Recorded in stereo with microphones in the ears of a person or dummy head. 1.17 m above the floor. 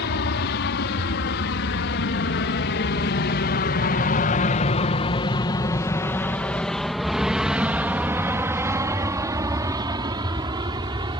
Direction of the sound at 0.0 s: 55° left (ahead or behind).